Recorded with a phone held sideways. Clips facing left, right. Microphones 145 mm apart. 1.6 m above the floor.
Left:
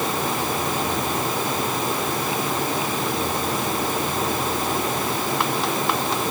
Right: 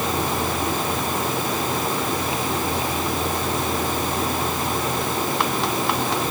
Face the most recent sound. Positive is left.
No sound to turn to.